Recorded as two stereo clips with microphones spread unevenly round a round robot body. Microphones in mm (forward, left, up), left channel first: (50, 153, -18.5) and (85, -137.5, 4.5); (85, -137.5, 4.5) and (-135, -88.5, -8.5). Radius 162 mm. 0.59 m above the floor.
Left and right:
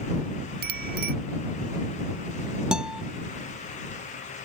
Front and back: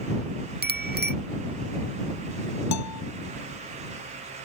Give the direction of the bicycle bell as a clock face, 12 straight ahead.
5 o'clock.